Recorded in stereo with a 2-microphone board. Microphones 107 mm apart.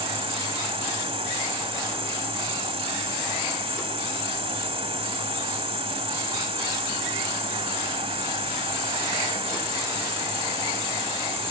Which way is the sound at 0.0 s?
75° right (ahead or behind).